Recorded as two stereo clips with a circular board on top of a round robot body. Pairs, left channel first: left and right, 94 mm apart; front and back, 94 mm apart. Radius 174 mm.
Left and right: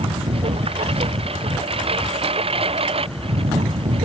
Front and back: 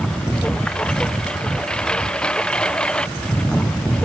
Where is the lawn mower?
80° right.